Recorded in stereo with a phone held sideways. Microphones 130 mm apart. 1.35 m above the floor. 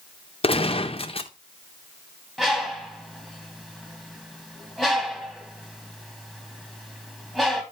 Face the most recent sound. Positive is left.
turn(degrees=-5)  # may be behind; listen again after turning